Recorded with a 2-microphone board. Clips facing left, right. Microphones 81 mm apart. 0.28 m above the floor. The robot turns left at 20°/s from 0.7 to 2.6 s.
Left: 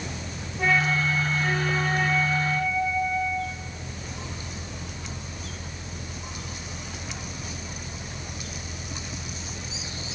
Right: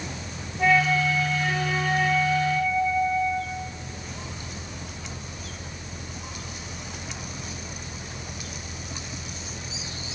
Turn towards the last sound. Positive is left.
turn(degrees=-35)